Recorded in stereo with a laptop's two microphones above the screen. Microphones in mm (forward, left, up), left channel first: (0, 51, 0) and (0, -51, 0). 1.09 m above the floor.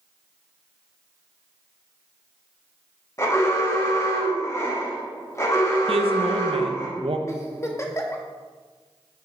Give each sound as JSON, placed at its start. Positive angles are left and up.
{"t": 3.2, "sound": "an alarm", "side_deg": 30, "distance_m": 1.5}
{"t": 5.9, "sound": "a woman speaking", "side_deg": -70, "distance_m": 0.6}
{"t": 7.3, "sound": "a giggle", "side_deg": 25, "distance_m": 0.6}